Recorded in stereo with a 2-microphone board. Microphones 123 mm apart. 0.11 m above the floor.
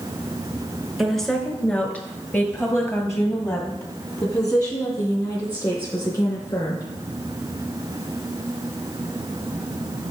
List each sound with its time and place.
1.0 s a woman speaking: centre (ahead or behind), 1.1 m; by 6.8 s 35° left (ahead or behind), 3.5 m